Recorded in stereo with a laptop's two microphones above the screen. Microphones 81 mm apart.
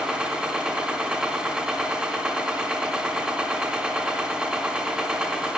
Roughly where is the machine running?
Centre.